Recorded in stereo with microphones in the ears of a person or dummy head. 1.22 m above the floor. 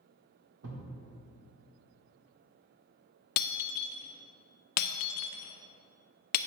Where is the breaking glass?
55° left (ahead or behind), 0.5 m.